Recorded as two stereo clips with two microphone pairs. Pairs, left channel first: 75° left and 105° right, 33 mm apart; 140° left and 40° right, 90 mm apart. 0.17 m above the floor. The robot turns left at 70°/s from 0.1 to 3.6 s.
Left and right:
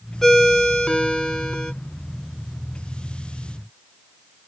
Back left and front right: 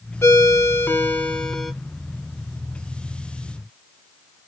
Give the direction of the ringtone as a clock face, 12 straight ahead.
7 o'clock.